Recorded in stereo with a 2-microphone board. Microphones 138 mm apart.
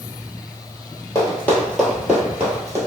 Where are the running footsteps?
20° left (ahead or behind), 1.5 m; by 2.8 s 25° right (ahead or behind), 1.4 m.